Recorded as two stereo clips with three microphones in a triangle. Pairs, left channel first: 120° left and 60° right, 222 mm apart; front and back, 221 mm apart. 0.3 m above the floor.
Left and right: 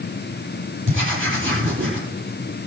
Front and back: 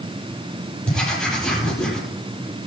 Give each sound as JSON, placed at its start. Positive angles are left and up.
{"t": 0.9, "sound": "writing", "azimuth_deg": -85, "distance_m": 8.0}